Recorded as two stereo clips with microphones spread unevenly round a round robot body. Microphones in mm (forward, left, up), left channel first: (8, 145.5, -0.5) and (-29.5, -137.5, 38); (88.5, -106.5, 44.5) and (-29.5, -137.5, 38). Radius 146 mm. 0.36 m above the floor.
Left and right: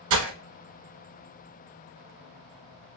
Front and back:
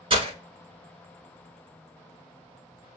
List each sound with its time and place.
0.1 s breaking glass: 120° right, 1.2 m